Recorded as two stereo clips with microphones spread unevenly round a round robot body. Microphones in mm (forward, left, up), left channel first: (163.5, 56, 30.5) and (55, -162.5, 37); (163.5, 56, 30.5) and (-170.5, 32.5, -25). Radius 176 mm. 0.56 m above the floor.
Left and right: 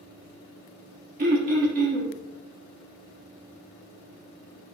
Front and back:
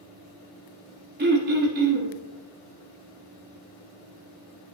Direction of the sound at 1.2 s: 150° right.